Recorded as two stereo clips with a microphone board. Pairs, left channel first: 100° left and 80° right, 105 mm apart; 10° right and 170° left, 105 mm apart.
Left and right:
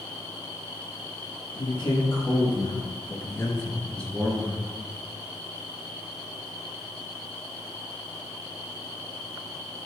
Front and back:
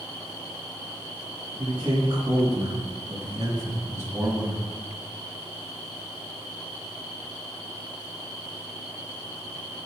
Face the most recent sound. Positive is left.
turn(degrees=-135)